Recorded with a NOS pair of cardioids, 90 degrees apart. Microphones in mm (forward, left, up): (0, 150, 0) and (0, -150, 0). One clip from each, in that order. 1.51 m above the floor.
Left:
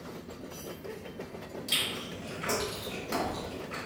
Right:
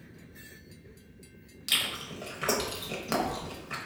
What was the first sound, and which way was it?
Chewing, 55° right.